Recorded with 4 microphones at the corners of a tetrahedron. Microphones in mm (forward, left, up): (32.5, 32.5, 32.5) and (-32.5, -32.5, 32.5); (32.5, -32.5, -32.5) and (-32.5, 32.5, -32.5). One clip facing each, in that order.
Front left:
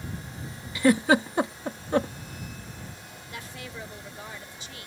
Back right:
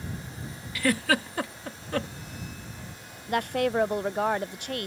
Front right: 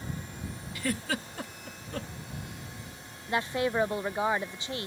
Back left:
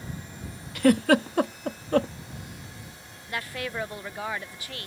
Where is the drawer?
I don't hear a drawer.